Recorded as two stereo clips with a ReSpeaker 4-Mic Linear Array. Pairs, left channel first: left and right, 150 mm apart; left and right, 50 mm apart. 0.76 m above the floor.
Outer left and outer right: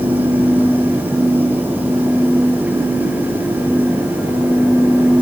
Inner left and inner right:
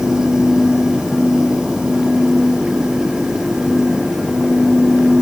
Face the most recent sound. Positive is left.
No sound to turn to.